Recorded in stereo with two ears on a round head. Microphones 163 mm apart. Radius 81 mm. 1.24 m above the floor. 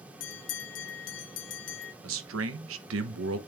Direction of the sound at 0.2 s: 70° left (ahead or behind).